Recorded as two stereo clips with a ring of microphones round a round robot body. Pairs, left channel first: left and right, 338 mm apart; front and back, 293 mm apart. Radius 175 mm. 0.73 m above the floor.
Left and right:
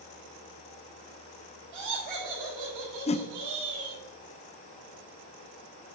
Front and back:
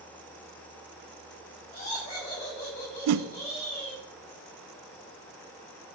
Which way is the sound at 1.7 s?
70° right.